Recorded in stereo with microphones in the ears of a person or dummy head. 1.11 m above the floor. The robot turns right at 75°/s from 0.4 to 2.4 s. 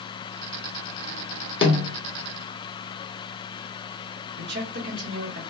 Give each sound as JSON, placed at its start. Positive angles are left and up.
{"t": 1.6, "sound": "a snare drum", "side_deg": 30, "distance_m": 1.2}
{"t": 4.4, "sound": "a man speaking", "side_deg": -55, "distance_m": 1.1}